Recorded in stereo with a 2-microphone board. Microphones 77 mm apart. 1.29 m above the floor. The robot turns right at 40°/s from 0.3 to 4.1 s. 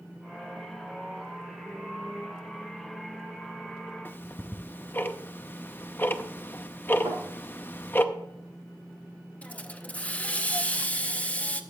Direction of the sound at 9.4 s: 20° left (ahead or behind).